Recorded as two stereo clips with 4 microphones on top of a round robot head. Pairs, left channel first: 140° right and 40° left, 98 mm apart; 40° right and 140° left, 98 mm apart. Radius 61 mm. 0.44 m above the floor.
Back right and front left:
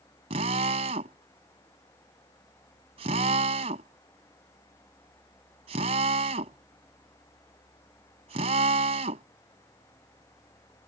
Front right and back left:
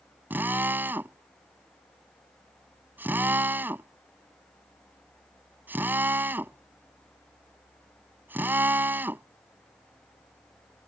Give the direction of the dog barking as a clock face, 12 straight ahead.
No dog barking in this recording.